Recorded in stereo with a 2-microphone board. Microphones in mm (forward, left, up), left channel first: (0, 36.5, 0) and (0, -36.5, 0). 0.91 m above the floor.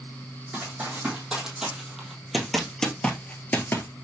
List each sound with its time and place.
0.5 s running footsteps: 15° right (ahead or behind), 2.5 m; by 3.9 s 35° left (ahead or behind), 1.0 m